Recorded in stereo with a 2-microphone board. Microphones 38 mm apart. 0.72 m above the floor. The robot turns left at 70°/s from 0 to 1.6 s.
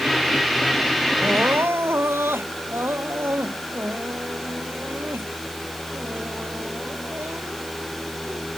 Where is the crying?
60° right (ahead or behind); by 8.4 s 90° right.